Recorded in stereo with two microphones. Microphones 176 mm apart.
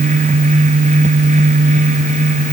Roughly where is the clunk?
I don't hear a clunk.